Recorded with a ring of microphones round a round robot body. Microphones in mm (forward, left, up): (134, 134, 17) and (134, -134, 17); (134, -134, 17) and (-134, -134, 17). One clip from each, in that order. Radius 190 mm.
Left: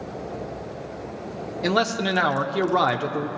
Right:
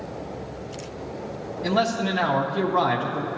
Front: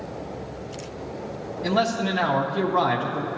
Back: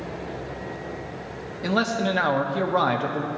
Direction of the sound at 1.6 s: 115° left.